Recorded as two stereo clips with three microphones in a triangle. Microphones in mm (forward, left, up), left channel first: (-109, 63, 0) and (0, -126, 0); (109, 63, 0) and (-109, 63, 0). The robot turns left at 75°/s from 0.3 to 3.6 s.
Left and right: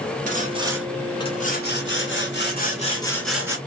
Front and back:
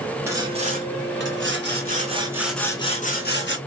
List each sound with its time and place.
0.3 s sawing: 105° right, 1.0 m; by 3.6 s 10° left, 1.0 m